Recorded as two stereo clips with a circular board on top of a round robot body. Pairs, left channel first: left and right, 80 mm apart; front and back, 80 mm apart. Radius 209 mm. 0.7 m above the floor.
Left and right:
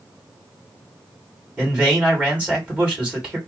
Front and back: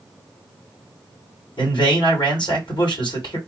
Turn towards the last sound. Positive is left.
turn(degrees=-15)